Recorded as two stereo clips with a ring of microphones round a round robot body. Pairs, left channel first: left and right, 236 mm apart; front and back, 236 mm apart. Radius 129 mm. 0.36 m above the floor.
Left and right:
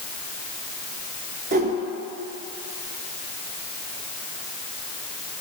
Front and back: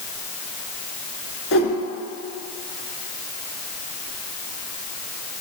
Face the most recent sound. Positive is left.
turn(degrees=-35)